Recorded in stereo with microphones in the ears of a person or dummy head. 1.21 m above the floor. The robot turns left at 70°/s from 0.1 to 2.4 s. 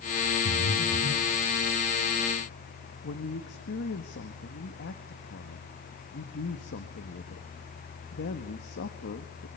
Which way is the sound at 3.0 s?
55° left (ahead or behind).